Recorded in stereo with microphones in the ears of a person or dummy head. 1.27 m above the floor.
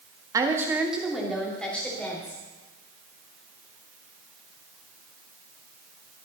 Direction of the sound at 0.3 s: 15° right (ahead or behind).